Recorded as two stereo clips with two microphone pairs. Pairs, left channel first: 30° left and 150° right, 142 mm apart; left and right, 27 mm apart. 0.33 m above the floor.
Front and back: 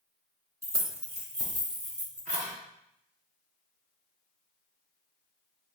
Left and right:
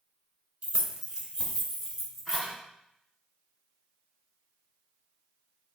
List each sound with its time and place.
0.6 s keys jangling: 90° right, 0.7 m; by 2.5 s 170° right, 1.7 m